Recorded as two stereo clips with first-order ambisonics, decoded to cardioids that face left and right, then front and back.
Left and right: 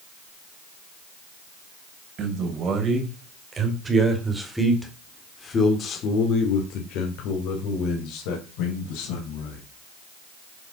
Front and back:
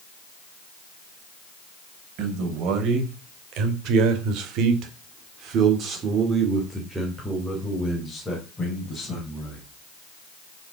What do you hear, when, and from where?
2.2 s a man speaking: 145° right, 3.5 m; by 9.6 s 75° left, 4 m